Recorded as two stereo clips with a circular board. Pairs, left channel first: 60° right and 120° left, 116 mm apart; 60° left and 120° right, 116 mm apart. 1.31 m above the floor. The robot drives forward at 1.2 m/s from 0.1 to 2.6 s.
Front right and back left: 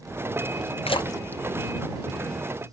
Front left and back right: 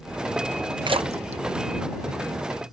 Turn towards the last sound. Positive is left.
turn(degrees=-165)